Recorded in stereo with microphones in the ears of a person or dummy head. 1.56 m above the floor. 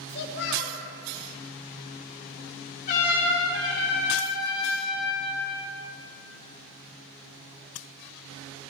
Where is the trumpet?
55° left (ahead or behind), 2.5 m.